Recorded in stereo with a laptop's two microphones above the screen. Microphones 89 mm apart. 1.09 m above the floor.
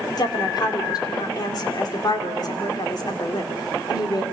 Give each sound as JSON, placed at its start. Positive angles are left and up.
{"t": 0.2, "sound": "a woman speaking", "side_deg": 50, "distance_m": 2.5}